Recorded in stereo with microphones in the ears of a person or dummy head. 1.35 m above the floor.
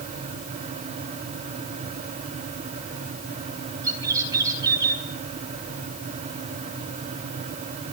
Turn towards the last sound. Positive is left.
turn(degrees=-15)  # may be behind; listen again after turning